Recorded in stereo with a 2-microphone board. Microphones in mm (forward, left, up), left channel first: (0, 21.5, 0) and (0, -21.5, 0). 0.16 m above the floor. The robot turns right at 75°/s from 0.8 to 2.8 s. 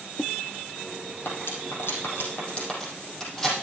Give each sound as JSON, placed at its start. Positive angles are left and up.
{"t": 1.2, "sound": "cutlery clinking", "side_deg": 50, "distance_m": 4.0}